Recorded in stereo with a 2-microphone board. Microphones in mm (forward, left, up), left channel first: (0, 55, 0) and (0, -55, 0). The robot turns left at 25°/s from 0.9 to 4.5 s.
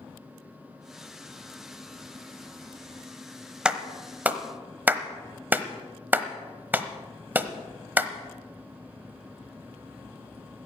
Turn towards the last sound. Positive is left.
turn(degrees=-15)  # may be behind; listen again after turning